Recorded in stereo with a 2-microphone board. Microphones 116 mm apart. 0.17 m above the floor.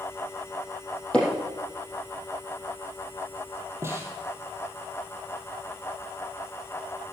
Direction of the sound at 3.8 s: 25° right (ahead or behind).